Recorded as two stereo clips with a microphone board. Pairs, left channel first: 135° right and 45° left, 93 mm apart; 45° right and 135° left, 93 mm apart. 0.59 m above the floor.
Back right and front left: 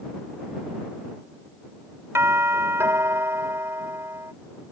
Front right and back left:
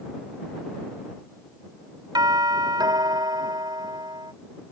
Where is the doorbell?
105° left.